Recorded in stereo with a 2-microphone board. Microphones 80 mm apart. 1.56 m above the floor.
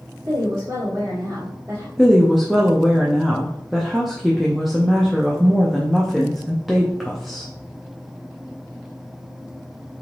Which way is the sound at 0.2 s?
55° right (ahead or behind).